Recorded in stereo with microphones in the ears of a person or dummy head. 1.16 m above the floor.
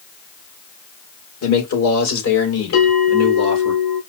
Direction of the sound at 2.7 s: 85° left.